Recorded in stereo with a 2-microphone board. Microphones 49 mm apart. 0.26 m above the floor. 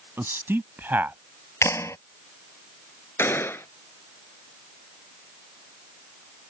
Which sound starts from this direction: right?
A man speaking, at 0.2 s.